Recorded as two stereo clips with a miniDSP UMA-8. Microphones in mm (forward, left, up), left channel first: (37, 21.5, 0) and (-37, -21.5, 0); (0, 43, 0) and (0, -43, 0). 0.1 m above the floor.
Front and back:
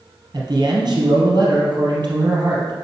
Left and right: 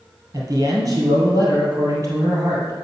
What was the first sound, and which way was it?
A man speaking, 130° right.